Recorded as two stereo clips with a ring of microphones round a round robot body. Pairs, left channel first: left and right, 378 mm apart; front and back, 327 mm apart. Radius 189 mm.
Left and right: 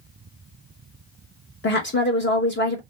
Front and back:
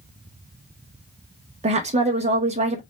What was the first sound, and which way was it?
A woman speaking, 125° left.